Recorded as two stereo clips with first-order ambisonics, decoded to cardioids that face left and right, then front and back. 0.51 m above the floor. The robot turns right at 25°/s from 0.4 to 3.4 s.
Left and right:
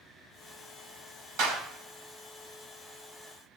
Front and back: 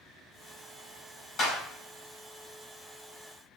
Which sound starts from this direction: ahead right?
A clap, at 1.4 s.